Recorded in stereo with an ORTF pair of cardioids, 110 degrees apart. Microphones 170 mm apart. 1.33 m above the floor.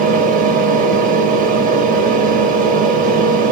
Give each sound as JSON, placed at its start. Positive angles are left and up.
{"t": 0.0, "sound": "a fan", "azimuth_deg": -55, "distance_m": 1.1}